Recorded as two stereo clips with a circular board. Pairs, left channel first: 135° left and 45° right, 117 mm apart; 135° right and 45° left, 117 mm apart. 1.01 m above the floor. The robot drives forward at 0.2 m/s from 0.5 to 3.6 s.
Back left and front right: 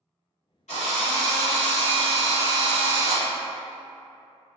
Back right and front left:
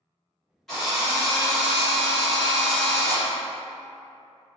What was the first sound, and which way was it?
A drill, 140° left.